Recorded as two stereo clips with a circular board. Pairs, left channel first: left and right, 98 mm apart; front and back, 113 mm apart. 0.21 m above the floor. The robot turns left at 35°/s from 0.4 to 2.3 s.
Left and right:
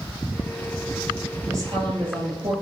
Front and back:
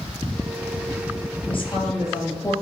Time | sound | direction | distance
1.5 | a woman speaking | 35° right | 3.5 m